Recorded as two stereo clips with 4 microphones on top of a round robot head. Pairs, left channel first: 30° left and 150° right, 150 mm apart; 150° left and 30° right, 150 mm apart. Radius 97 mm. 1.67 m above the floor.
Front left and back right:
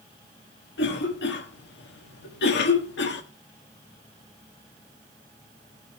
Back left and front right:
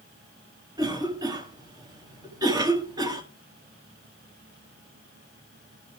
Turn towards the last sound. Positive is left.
turn(degrees=35)